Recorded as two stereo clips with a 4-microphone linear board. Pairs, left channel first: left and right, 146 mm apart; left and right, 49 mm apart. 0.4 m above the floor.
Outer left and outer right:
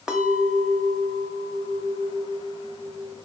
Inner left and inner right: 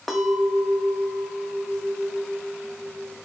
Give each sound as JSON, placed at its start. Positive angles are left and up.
{"t": 0.1, "sound": "a clink", "side_deg": -5, "distance_m": 0.8}